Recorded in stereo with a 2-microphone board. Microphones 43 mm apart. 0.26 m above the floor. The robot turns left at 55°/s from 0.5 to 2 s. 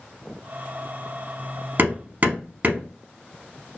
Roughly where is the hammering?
Right.